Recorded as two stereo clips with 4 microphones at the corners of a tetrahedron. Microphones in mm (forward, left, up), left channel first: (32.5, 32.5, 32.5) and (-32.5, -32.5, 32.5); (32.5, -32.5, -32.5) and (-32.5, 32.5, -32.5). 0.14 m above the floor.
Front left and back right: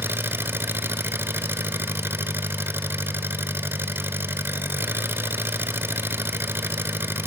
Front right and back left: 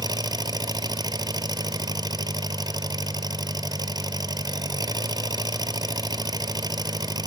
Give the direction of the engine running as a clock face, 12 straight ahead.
7 o'clock.